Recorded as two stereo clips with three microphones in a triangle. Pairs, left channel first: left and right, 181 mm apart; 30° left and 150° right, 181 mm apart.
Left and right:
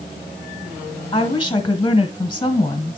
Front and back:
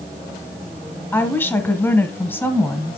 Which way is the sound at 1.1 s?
90° left.